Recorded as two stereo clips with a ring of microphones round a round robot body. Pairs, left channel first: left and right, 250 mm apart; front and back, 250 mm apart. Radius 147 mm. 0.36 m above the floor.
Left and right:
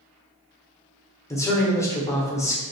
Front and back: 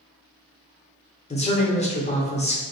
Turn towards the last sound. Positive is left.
turn(degrees=25)